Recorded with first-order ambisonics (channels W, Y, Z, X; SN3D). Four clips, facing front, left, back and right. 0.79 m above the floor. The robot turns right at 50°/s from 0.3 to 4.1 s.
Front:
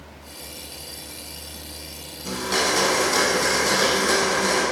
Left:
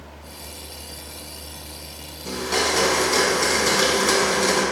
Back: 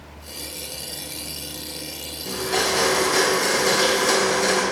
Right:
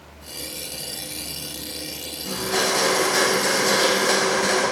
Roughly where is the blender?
Ahead.